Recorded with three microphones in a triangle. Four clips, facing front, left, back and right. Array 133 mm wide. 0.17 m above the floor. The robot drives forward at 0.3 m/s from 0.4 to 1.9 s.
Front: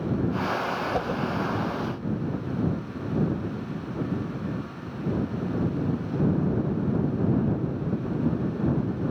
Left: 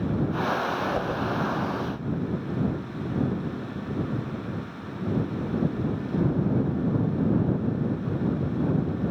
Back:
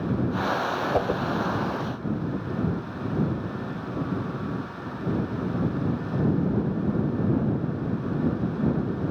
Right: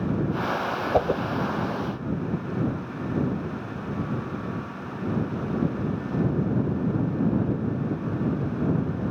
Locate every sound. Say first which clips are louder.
0.9 s a whoosh: right 5 dB, back 3 dB; 110° right, 0.7 m; by 1.2 s 120° right, 0.8 m